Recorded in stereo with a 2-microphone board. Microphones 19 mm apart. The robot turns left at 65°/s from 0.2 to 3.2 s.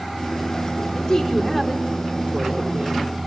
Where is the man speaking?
55° left, 4.5 m; by 3.1 s 80° right, 4.5 m.